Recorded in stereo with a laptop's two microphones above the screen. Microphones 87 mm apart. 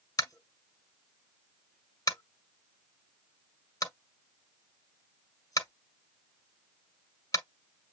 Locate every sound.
0.2 s tapping: 45° left (ahead or behind), 1.8 m